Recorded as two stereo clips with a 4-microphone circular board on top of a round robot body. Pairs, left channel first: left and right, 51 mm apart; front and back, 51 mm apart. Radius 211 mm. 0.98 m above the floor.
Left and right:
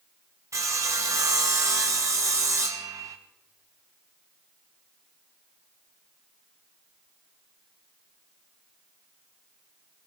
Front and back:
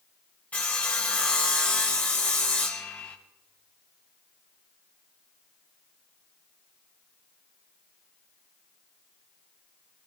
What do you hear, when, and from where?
0.5 s sawing: 65° right, 0.6 m